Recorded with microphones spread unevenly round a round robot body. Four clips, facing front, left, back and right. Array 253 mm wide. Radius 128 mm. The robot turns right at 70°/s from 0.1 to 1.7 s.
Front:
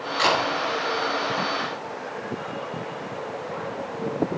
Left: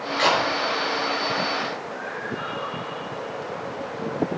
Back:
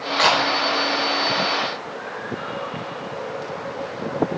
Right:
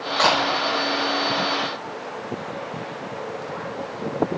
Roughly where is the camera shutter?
Behind right.